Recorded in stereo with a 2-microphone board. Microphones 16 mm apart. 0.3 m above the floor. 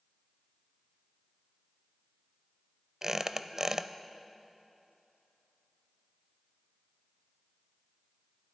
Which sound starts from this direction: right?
A squeak, at 3.0 s.